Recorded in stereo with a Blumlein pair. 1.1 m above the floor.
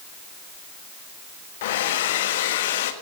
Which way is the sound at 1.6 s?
55° left.